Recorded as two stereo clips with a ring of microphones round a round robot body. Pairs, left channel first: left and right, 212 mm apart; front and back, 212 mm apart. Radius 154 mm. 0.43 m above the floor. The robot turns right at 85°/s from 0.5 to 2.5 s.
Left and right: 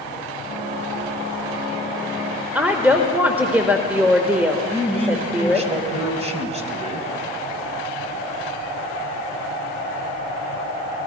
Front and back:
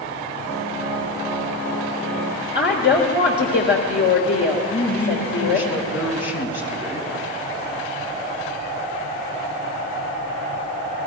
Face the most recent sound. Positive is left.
turn(degrees=-30)